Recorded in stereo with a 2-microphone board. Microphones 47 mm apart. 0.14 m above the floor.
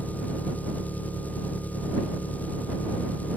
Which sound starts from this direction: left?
An engine running, at 0.0 s.